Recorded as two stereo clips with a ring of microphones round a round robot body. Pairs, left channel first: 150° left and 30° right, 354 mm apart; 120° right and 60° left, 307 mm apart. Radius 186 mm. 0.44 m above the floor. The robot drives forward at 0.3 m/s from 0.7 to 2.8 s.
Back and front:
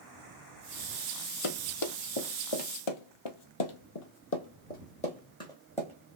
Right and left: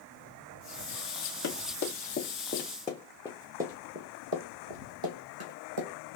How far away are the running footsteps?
About 1.1 m.